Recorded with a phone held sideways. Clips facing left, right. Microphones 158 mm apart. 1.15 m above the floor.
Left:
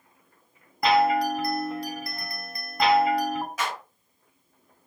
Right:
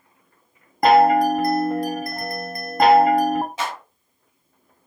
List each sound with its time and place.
0.8 s a chime: 50° right (ahead or behind), 0.7 m
3.6 s a clap: 25° right (ahead or behind), 7 m